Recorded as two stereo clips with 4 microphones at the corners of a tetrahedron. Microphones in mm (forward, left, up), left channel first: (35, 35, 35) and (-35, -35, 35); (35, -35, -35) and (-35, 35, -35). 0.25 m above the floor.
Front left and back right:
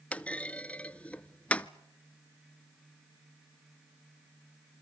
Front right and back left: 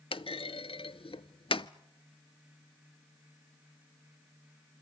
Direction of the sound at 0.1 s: 30° right.